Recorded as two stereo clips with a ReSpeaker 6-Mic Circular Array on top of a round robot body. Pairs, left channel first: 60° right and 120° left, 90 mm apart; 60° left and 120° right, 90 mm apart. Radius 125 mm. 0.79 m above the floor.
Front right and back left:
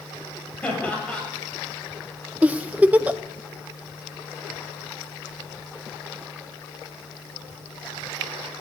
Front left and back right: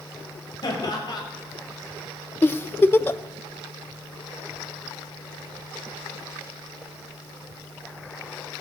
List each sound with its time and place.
0.6 s laughter: 20° left, 7.5 m
2.4 s a giggle: 70° left, 0.7 m